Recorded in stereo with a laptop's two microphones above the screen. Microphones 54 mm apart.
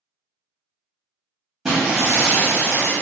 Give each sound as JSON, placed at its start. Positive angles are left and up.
{"t": 1.6, "sound": "breaking glass", "side_deg": -15, "distance_m": 0.9}